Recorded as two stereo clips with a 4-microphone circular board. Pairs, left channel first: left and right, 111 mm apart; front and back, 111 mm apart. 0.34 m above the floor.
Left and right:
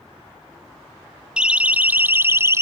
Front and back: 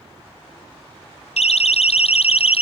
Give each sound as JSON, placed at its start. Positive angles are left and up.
{"t": 1.4, "sound": "a siren", "azimuth_deg": -10}